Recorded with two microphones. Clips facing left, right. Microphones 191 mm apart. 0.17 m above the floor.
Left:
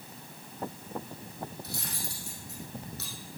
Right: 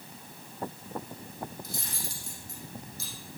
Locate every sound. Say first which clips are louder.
1.6 s cutlery clinking: left 1 dB; 65° left (ahead or behind), 4.5 m